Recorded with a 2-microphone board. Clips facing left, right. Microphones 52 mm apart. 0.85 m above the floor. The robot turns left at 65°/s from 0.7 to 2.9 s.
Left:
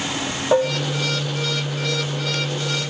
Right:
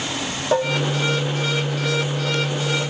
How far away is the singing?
No singing in this recording.